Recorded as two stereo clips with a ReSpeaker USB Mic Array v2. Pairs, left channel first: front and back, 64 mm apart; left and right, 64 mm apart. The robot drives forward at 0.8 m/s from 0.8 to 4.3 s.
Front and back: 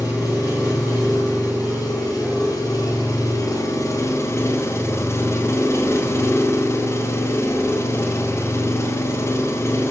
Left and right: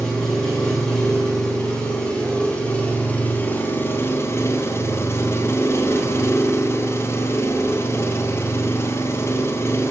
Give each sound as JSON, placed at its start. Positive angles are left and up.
{"t": 0.0, "sound": "an engine running", "azimuth_deg": 15, "distance_m": 4.0}